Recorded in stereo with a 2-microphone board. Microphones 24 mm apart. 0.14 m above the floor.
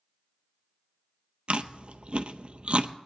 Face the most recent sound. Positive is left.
turn(degrees=-55)  # may be behind; listen again after turning